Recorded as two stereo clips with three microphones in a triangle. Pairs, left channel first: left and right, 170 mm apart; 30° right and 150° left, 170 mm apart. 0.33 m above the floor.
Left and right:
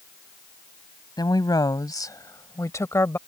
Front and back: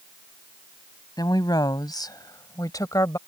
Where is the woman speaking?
30° left; by 3.2 s 25° left.